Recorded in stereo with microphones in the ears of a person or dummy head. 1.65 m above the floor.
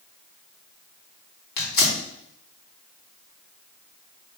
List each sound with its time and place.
1.6 s tearing paper: 45° left (ahead or behind), 3.5 m